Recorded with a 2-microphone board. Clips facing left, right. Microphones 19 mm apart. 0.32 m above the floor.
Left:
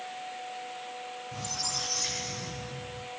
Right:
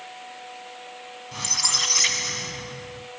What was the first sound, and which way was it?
A squeak, 60° right (ahead or behind).